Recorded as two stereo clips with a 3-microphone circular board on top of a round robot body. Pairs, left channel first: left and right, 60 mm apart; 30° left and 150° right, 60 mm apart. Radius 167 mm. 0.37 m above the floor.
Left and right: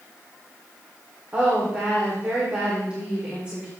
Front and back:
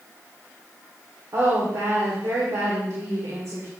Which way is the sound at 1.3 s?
160° right.